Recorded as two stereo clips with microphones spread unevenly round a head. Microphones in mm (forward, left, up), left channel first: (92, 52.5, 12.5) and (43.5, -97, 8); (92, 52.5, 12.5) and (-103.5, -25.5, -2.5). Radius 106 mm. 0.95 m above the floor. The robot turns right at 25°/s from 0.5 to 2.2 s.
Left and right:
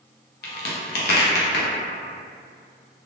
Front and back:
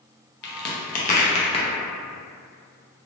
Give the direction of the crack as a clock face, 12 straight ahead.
10 o'clock.